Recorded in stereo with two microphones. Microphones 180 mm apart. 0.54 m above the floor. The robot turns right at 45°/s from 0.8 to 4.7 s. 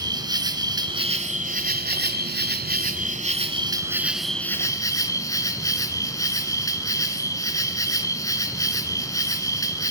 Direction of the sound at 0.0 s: 155° right.